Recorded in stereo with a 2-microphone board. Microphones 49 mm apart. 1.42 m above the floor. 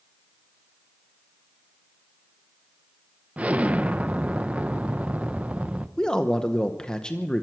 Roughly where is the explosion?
Right.